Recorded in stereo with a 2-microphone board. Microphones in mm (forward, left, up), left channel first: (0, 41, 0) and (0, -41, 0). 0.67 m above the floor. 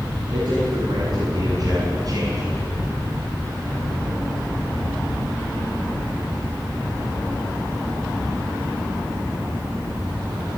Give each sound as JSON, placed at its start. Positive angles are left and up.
{"t": 0.3, "sound": "a man speaking", "side_deg": -60, "distance_m": 8.0}